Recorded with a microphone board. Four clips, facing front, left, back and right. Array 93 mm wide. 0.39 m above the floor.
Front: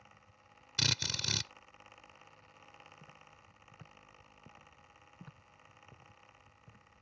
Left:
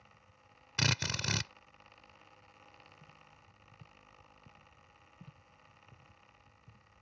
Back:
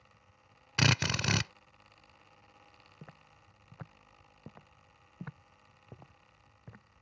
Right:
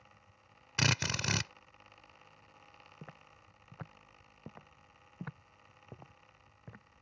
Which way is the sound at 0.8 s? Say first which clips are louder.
Right 2 dB, back 10 dB; 170° right.